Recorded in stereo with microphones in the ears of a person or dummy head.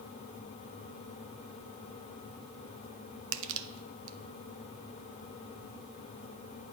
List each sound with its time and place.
3.3 s crushing: 75° right (ahead or behind), 0.6 m